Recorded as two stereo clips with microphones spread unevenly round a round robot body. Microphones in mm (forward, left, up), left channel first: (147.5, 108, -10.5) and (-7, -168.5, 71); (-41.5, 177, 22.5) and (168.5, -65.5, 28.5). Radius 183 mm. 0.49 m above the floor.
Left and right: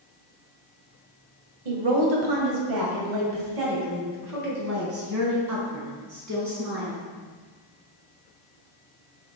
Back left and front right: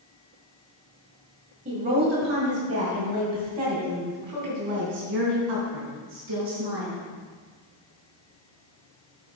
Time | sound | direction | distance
1.6 | a woman speaking | 115° right | 2 m